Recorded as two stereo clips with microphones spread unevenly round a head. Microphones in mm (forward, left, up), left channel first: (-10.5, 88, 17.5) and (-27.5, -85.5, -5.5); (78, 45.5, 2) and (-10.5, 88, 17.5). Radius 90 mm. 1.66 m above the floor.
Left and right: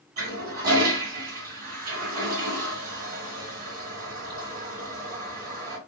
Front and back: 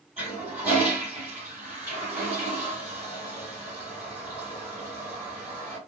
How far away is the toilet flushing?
About 1.6 m.